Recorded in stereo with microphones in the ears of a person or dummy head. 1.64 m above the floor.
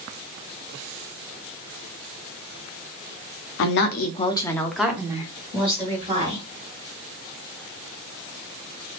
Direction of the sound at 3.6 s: 65° left (ahead or behind).